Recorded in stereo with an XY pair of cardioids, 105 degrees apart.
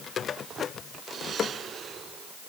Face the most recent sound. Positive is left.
No sound to turn to.